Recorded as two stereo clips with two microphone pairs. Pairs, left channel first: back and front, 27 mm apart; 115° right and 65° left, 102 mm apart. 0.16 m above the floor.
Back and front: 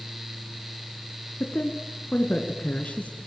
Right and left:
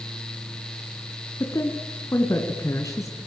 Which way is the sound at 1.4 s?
170° right.